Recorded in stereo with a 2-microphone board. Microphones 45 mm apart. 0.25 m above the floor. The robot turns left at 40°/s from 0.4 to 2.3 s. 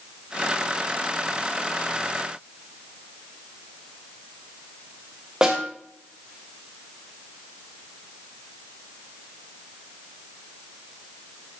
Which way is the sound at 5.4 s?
20° right (ahead or behind).